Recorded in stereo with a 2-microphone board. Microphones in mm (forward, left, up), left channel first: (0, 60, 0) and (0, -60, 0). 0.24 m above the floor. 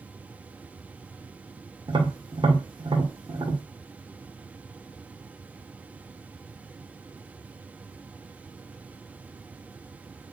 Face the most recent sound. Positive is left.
turn(degrees=-40)  # may be behind; listen again after turning